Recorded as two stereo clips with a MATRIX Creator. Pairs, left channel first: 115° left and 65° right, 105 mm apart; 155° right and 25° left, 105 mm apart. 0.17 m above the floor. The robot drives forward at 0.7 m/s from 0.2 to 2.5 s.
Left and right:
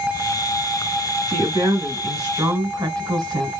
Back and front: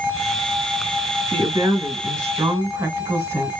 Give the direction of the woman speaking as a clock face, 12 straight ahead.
1 o'clock.